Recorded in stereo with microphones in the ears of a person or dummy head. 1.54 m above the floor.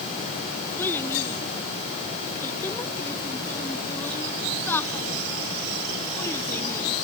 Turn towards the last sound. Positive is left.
turn(degrees=10)  # may be behind; listen again after turning